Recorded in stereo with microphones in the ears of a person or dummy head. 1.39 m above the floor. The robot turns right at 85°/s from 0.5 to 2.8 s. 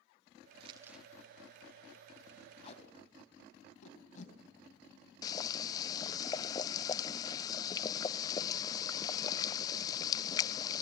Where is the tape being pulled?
35° left (ahead or behind), 3 m; by 4.3 s 50° left (ahead or behind), 3 m.